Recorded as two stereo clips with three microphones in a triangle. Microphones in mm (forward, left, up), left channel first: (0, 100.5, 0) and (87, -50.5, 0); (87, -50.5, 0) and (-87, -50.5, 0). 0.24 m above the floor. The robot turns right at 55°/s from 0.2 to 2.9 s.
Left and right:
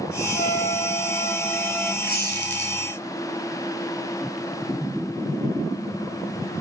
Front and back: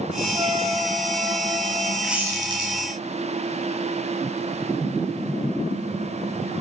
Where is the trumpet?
125° left, 1.2 m; by 1.9 s 145° right, 1.2 m.